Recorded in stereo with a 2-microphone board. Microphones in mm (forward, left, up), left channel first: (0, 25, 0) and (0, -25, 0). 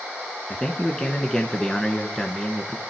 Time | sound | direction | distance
0.5 | a man speaking | 20° left (ahead or behind) | 1.4 m